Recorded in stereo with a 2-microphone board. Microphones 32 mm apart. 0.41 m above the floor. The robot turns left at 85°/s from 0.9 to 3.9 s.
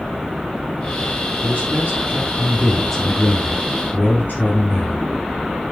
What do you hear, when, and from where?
1.4 s a man speaking: 60° right, 6.5 m; by 5.1 s 90° left, 6.5 m